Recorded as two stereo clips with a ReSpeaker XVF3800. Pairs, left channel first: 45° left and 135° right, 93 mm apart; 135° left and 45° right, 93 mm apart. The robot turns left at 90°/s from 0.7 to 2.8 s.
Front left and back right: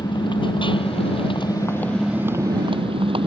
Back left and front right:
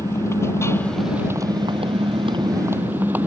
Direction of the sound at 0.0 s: 75° left.